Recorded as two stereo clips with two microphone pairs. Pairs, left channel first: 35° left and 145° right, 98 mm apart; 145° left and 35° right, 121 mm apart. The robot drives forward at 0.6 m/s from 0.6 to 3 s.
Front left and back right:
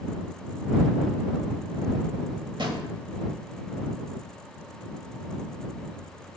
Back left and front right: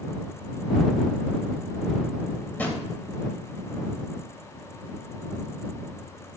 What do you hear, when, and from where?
2.6 s a drawer: 145° right, 1.0 m; by 2.9 s 150° right, 1.1 m